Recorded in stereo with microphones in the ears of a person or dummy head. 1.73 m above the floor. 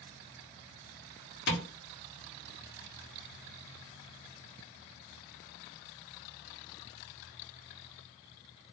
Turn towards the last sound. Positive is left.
turn(degrees=60)  # may be behind; listen again after turning